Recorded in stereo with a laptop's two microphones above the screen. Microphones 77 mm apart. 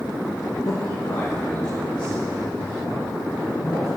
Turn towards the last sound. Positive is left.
turn(degrees=85)